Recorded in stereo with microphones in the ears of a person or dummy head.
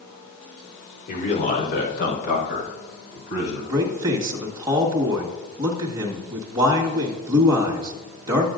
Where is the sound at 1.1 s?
50° left (ahead or behind), 3.5 m; by 3.6 s 65° left (ahead or behind), 7 m.